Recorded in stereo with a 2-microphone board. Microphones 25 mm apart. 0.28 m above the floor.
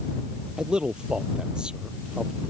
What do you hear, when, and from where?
0.6 s a man speaking: 40° right (ahead or behind); by 2.5 s 35° right (ahead or behind)